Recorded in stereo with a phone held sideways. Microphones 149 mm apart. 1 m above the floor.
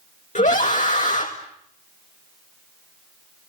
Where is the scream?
60° left (ahead or behind), 1.8 m.